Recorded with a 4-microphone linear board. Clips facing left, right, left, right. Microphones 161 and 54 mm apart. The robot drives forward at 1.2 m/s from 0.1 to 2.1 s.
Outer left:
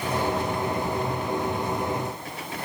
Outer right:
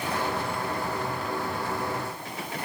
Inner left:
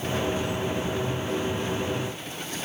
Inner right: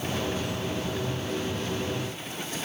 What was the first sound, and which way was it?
Only background noise.